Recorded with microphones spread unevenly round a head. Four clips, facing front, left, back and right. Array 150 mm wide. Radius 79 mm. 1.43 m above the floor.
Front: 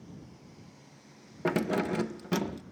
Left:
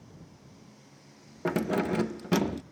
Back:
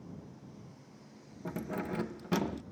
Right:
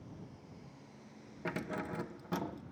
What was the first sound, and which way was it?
Keys jangling, 45° left.